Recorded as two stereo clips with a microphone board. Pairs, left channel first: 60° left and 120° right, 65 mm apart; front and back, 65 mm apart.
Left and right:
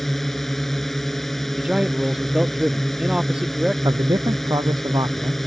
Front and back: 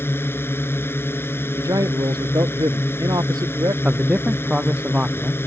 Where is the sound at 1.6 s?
160° left.